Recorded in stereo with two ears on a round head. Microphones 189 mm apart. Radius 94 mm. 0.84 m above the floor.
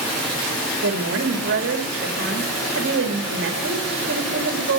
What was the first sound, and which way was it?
A woman speaking, 60° right (ahead or behind).